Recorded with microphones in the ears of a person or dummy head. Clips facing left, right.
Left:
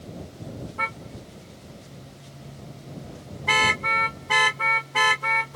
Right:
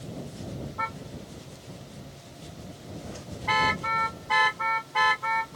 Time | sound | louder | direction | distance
0.8 | a car horn | left 1 dB | 40° left (ahead or behind) | ?